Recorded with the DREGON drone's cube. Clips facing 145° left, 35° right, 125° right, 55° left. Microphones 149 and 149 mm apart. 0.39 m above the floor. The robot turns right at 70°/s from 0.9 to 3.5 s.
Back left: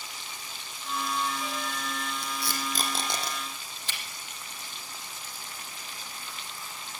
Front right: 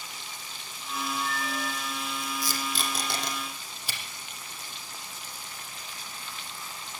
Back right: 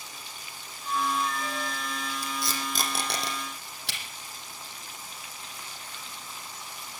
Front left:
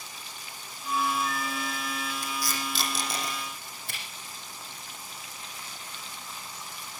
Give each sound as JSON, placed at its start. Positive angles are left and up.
{"t": 0.8, "sound": "a flute", "azimuth_deg": 160, "distance_m": 1.9}
{"t": 2.2, "sound": "tape being pulled", "azimuth_deg": 155, "distance_m": 6.0}